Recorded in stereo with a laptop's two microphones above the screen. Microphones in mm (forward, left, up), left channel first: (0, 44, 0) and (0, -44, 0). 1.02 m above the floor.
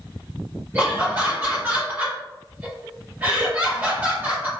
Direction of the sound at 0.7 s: 25° right (ahead or behind).